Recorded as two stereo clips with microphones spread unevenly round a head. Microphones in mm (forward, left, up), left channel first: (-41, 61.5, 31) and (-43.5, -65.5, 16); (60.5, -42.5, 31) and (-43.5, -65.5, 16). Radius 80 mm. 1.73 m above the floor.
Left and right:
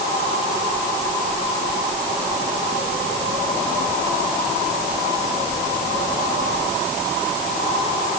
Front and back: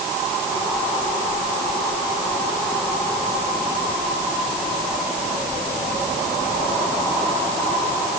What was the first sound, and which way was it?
Only background noise.